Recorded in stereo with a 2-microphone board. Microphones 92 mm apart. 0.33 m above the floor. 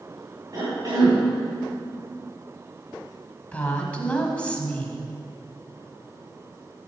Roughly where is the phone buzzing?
No phone buzzing in this recording.